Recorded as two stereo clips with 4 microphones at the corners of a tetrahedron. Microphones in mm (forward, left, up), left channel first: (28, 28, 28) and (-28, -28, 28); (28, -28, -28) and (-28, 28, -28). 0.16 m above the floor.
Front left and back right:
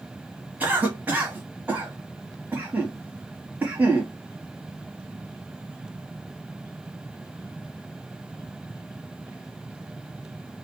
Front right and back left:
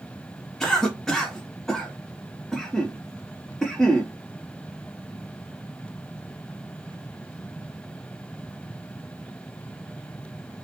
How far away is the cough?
About 1.1 m.